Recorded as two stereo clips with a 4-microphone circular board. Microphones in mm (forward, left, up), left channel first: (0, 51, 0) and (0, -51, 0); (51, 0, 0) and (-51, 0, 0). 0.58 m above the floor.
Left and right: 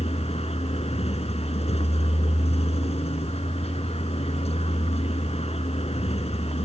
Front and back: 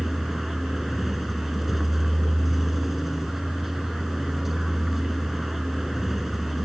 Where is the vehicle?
90° left.